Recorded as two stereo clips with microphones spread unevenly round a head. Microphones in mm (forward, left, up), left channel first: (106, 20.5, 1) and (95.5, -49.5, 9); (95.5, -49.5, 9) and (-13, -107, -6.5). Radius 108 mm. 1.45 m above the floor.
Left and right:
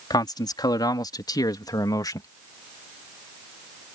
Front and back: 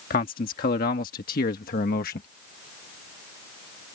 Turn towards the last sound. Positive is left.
turn(degrees=45)